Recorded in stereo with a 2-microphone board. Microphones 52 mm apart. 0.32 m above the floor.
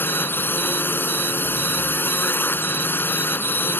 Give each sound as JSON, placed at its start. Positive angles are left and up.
{"t": 0.0, "sound": "a drone", "side_deg": 40}